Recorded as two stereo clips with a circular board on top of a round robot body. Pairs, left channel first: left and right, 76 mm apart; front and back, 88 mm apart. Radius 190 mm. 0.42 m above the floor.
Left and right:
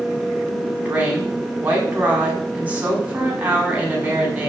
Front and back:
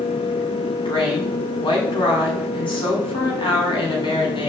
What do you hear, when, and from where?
0.8 s a woman speaking: 20° right, 6 m